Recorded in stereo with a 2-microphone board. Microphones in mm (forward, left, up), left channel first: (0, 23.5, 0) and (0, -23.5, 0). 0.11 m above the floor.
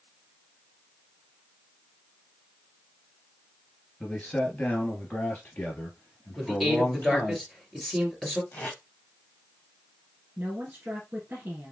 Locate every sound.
4.0 s a man speaking: 30° left (ahead or behind), 1.7 m; by 7.4 s 60° left (ahead or behind), 2.5 m
6.4 s a man speaking: centre (ahead or behind), 1.9 m
8.5 s tape being pulled: 40° left (ahead or behind), 1.9 m
10.4 s a woman speaking: 35° right (ahead or behind), 2 m